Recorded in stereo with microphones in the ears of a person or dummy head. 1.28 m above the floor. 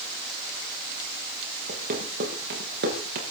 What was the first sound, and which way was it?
Running footsteps, 45° right (ahead or behind).